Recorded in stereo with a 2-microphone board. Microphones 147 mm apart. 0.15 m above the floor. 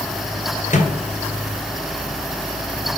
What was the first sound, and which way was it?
A microwave, 55° left (ahead or behind).